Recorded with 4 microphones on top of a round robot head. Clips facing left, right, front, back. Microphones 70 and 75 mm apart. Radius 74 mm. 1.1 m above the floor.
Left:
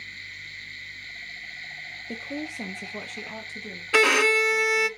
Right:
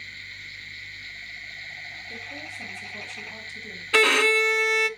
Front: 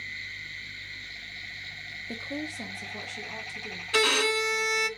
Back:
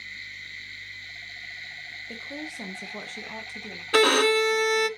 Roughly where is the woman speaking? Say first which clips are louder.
Left 8 dB, front 3 dB; left.